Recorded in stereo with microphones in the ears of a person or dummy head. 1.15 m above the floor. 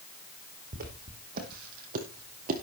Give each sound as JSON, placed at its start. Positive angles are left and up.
{"t": 0.7, "sound": "footsteps", "side_deg": -55, "distance_m": 4.0}